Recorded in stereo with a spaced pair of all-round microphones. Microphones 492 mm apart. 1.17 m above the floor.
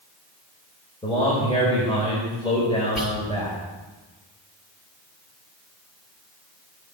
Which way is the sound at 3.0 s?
75° left (ahead or behind).